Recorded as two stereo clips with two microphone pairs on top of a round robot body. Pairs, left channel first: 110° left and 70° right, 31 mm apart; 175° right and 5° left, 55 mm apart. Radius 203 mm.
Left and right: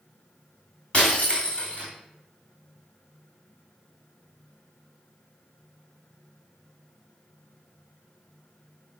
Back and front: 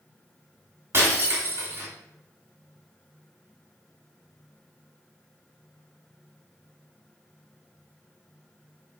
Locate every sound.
0.9 s breaking glass: 45° left, 2.5 m